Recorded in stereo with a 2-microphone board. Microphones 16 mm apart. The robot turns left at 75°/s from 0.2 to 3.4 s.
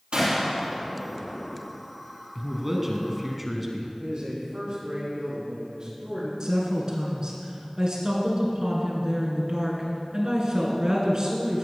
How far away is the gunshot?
About 3.5 m.